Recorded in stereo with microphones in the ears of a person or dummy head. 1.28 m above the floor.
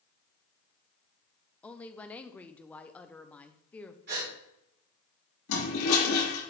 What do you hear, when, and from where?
1.6 s a woman speaking: 5° left (ahead or behind), 0.6 m
4.1 s a gasp: 55° right (ahead or behind), 2.5 m
5.5 s a toilet flushing: 75° left (ahead or behind), 3 m